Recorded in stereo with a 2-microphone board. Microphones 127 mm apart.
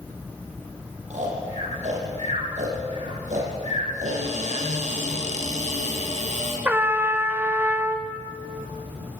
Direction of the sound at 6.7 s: 15° right (ahead or behind).